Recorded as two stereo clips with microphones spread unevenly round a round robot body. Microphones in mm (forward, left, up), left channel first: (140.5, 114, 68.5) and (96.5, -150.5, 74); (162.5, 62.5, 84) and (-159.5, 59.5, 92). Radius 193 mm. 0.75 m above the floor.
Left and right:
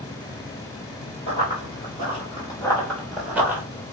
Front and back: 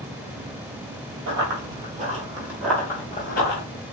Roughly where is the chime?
No chime in this recording.